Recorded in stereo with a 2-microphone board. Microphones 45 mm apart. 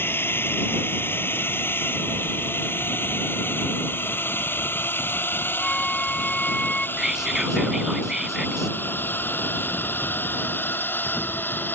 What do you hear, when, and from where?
0.0 s a drone: 55° left (ahead or behind); by 11.8 s 50° left (ahead or behind)
5.6 s a flute: 20° left (ahead or behind)
7.0 s whispering: 10° right (ahead or behind)